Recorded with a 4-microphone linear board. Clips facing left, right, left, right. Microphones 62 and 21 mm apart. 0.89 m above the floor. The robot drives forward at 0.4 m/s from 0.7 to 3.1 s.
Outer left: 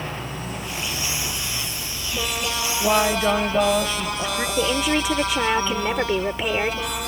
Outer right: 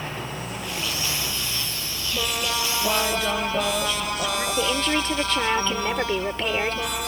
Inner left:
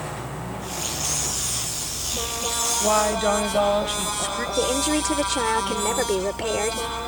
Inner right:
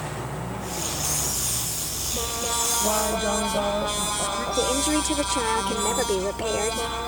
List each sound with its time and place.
2.8 s a woman speaking: 30° left (ahead or behind)
4.6 s a woman speaking: 10° left (ahead or behind)